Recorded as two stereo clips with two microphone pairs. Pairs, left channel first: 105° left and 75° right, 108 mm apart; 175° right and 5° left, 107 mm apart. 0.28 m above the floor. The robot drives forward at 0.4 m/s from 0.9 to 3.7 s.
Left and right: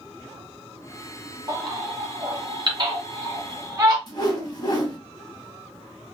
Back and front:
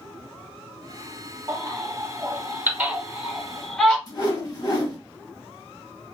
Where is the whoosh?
145° left, 1.0 m.